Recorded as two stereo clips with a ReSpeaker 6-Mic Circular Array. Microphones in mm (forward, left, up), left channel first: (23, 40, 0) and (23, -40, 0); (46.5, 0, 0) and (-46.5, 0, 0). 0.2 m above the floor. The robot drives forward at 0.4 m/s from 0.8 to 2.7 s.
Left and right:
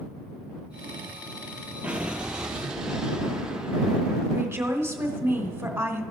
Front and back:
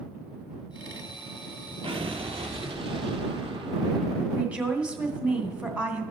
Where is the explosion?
165° right, 0.8 m; by 4.2 s 170° right, 1.2 m.